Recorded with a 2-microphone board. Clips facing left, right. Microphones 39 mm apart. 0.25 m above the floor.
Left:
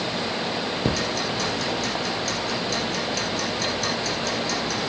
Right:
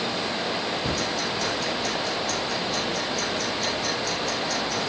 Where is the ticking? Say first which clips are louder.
Left 2 dB; 85° left, 7 m.